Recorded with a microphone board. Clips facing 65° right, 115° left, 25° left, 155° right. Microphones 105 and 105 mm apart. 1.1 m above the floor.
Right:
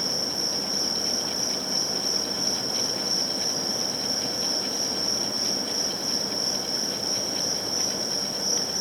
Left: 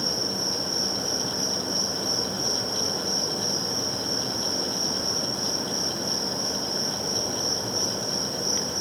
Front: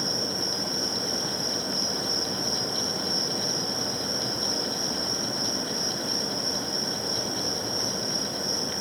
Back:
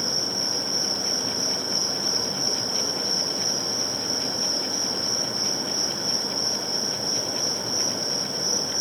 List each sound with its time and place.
0.0 s an insect: 140° left, 4.5 m